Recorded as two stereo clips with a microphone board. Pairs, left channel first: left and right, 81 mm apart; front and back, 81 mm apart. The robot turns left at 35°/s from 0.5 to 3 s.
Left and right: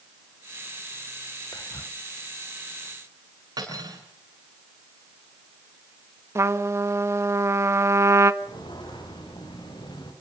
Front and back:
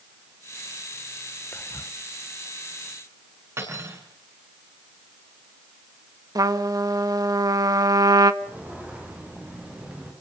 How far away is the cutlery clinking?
About 8.5 m.